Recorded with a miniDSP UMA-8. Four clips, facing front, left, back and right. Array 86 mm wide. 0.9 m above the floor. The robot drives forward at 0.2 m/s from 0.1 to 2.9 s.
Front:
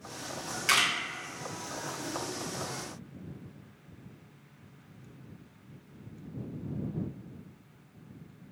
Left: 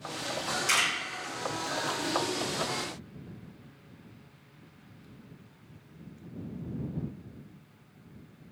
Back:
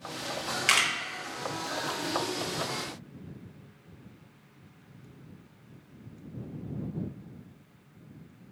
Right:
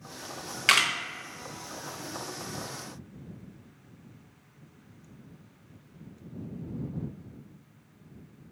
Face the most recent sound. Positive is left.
turn(degrees=-135)